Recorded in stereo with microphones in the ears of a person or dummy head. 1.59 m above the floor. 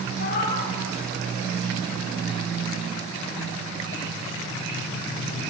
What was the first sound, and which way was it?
A cat meowing, 55° left (ahead or behind).